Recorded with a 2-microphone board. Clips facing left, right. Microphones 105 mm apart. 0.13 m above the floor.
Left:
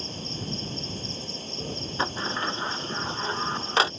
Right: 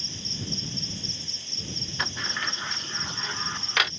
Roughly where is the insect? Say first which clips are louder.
Left 3 dB; left.